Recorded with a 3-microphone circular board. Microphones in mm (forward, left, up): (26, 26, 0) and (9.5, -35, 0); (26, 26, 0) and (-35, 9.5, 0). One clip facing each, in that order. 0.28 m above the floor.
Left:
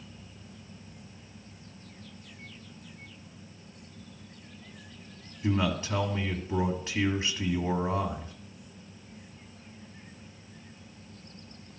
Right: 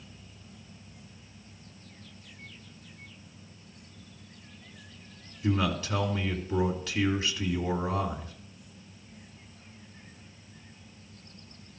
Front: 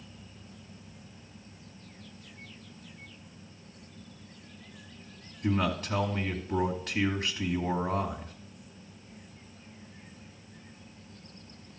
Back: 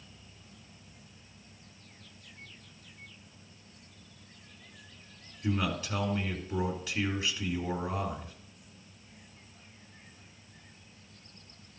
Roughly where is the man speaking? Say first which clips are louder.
Even, front 3 dB; ahead.